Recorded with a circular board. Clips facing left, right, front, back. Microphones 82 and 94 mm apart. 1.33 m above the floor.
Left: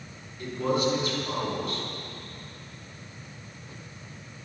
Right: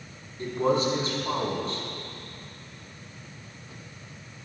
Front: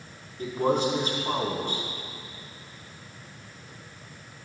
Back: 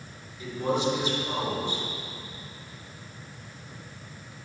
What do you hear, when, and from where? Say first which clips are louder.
0.4 s a man speaking: right 2 dB, front 3 dB; 35° right, 4 m